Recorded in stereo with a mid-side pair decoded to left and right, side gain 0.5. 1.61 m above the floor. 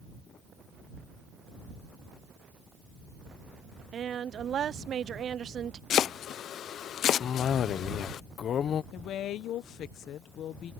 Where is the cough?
55° left.